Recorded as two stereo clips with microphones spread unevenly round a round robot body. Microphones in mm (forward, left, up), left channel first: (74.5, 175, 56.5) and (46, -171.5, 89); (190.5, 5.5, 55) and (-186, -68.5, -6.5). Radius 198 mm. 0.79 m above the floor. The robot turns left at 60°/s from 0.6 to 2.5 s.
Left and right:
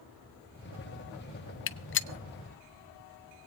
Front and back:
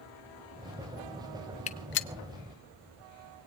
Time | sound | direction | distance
1.7 | a gunshot | 85° left | 0.8 m